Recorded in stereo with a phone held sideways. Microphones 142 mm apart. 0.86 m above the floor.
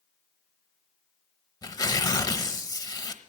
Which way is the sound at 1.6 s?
30° left (ahead or behind).